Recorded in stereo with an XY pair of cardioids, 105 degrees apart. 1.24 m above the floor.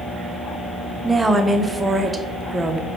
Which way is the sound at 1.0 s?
20° right.